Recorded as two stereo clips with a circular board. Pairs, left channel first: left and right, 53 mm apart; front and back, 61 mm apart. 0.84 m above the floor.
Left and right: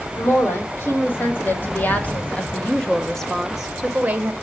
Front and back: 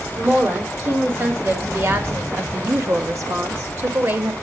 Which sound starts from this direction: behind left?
A woman speaking, at 0.2 s.